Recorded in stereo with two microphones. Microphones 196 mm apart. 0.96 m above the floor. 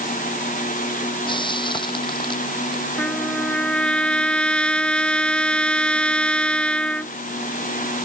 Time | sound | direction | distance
1.3 | frying | 25° left (ahead or behind) | ?
3.0 | a trumpet | 5° left (ahead or behind) | ?